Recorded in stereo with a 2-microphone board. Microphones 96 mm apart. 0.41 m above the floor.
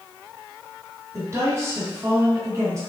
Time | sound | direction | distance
1.1 | a woman speaking | 30° right (ahead or behind) | 1.8 m